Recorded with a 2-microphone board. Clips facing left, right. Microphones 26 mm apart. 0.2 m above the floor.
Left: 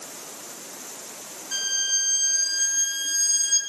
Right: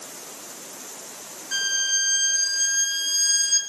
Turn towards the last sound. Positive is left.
turn(degrees=-20)  # may be behind; listen again after turning